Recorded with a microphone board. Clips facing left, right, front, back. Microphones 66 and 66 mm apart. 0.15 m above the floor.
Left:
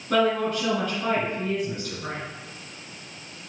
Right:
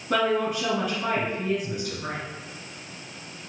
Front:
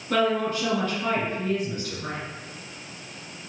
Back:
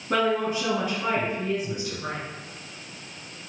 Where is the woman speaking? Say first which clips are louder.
Left 1 dB, even; 160° right, 1.7 m.